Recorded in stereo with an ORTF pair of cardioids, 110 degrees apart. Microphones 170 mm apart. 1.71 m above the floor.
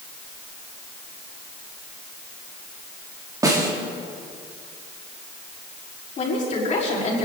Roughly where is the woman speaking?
Ahead left.